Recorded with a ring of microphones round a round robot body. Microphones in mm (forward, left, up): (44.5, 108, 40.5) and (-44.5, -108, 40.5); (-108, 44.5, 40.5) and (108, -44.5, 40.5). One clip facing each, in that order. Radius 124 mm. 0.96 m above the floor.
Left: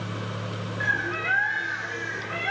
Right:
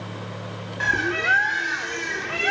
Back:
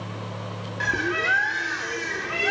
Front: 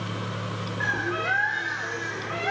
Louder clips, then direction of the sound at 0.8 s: Right 5 dB, back 4 dB; 150° right.